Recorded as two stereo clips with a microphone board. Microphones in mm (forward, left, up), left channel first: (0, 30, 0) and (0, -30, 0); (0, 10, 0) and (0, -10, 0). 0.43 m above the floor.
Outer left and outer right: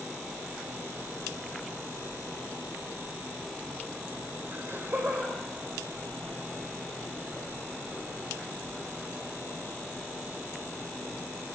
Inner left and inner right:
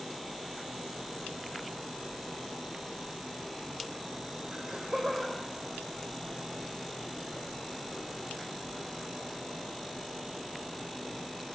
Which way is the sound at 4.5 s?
35° right (ahead or behind).